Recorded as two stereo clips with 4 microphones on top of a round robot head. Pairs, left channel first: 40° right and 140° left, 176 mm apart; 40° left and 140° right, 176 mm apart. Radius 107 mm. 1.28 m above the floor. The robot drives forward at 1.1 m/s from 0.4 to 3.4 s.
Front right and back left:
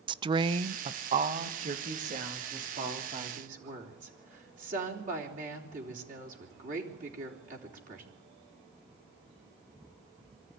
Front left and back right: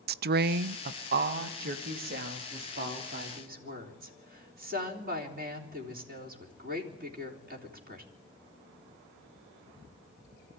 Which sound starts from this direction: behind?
A woman speaking, at 0.1 s.